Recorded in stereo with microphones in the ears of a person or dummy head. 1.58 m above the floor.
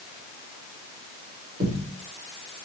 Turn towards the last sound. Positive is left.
turn(degrees=-40)  # may be behind; listen again after turning